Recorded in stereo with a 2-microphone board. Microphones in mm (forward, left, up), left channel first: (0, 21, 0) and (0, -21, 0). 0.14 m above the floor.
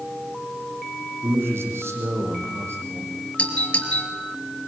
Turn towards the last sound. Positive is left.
turn(degrees=30)  # may be behind; listen again after turning